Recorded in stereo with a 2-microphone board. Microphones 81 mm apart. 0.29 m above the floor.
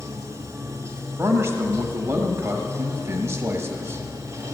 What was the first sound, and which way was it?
Running water, 35° right (ahead or behind).